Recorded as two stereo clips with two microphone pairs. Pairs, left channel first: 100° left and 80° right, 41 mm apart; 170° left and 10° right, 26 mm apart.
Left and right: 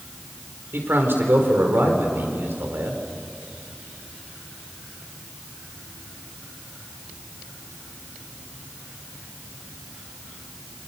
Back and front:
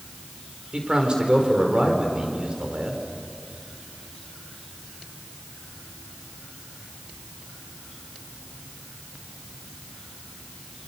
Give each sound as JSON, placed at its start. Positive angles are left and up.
{"t": 0.7, "sound": "a man speaking", "azimuth_deg": -60, "distance_m": 4.5}